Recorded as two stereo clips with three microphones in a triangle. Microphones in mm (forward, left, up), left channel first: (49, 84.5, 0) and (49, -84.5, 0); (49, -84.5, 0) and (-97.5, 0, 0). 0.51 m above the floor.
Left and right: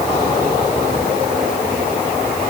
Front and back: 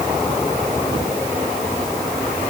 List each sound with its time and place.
Only background noise.